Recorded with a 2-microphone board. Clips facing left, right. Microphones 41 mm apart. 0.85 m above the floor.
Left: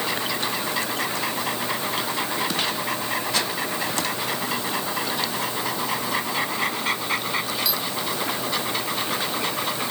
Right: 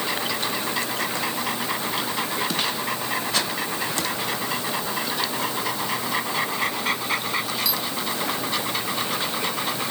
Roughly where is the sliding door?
No sliding door in this recording.